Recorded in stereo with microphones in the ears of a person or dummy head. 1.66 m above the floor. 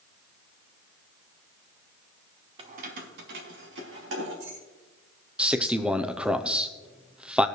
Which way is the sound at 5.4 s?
5° right (ahead or behind).